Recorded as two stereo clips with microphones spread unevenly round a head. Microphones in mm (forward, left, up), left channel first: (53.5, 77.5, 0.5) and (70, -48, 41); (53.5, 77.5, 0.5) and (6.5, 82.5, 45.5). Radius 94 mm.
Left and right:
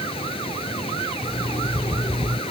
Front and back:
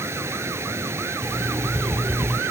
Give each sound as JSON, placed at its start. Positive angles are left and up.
{"t": 0.0, "sound": "a machine running", "azimuth_deg": 160}
{"t": 1.2, "sound": "an alarm clock", "azimuth_deg": 175}